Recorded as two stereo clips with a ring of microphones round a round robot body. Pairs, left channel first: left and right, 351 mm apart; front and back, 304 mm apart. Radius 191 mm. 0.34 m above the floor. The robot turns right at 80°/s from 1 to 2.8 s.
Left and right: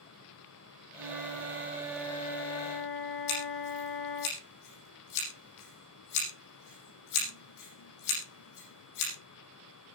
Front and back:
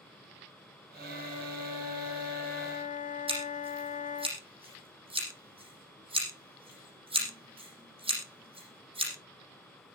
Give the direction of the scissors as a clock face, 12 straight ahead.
8 o'clock.